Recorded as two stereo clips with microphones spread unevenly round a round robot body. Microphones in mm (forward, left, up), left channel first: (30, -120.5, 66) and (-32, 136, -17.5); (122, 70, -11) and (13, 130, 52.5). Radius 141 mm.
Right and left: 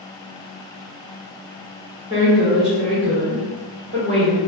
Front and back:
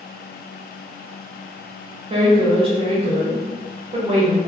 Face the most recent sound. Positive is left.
turn(degrees=100)